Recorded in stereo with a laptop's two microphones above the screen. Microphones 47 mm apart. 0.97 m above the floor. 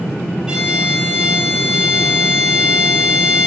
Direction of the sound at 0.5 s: 15° right (ahead or behind).